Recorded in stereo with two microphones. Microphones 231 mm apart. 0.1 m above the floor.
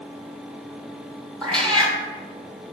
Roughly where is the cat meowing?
Centre.